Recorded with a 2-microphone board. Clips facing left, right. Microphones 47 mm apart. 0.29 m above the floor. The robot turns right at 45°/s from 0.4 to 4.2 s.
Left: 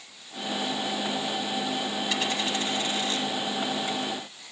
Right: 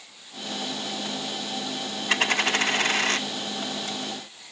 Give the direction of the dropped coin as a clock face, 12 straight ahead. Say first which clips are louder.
Right 9 dB; 4 o'clock.